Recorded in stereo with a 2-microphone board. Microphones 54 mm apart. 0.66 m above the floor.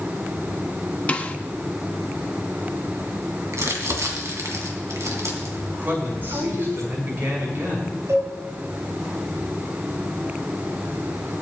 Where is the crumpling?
65° right (ahead or behind), 3 m.